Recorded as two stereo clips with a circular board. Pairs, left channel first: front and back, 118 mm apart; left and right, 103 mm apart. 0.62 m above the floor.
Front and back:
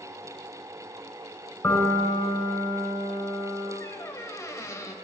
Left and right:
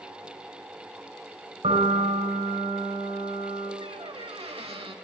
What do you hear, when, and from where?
1.6 s a piano: 70° right, 3.5 m
3.8 s a squeak: 65° right, 1.2 m